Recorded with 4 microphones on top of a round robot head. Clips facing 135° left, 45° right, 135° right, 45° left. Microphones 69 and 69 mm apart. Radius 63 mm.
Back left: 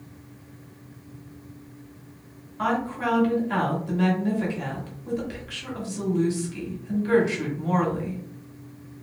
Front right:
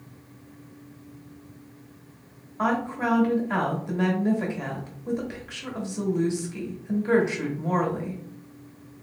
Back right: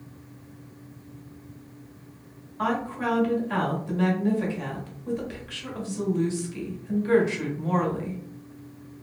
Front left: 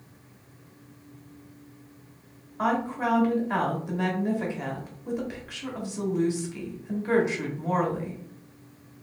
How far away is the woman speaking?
About 1.3 m.